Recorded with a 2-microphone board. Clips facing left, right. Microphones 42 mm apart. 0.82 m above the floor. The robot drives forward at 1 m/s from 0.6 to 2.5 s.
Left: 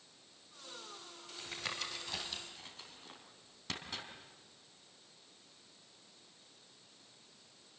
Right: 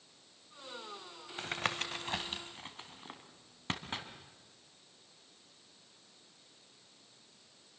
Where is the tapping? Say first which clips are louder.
Right 6 dB; 60° right (ahead or behind), 1.5 m; by 4.0 s 35° right (ahead or behind), 2 m.